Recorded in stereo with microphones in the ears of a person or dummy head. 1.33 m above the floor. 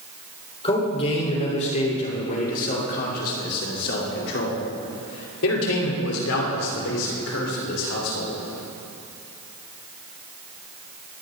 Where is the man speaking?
30° left (ahead or behind), 4.5 m; by 8.4 s 75° left (ahead or behind), 5.5 m.